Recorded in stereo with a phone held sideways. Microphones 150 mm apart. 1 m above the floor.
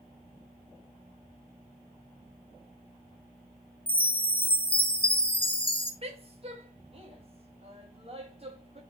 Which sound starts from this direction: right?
A woman speaking, at 6.0 s.